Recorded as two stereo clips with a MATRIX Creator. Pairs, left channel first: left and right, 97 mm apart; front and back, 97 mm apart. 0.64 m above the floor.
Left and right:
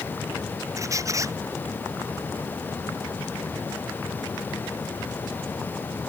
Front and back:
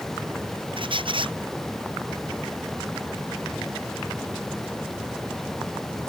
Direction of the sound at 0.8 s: 145° right.